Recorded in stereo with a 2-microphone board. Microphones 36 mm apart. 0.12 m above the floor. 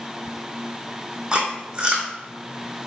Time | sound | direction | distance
1.3 | chewing | 25° right (ahead or behind) | 1.5 m